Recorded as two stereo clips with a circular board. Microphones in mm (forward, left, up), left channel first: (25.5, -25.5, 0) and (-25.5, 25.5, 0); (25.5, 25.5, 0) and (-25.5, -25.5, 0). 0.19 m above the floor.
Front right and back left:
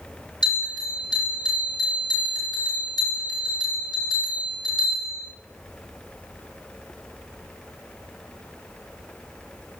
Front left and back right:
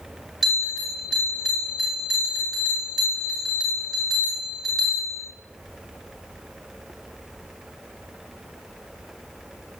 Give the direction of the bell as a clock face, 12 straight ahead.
2 o'clock.